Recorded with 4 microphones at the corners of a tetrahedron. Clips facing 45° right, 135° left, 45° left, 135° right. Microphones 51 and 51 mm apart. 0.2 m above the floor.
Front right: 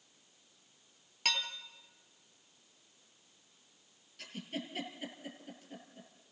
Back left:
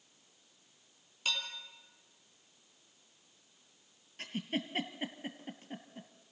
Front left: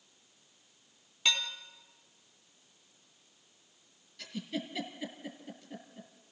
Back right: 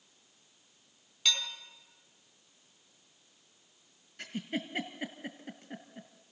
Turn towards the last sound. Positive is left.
turn(degrees=-175)